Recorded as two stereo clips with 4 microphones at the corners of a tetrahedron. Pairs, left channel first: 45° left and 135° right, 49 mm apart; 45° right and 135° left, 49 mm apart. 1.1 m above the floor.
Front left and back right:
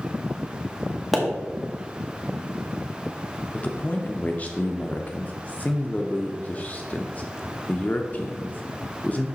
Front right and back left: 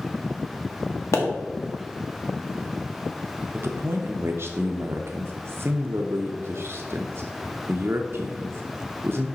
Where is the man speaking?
105° left, 0.5 m.